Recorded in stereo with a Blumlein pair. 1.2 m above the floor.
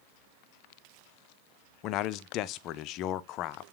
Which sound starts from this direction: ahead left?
A man speaking, at 1.8 s.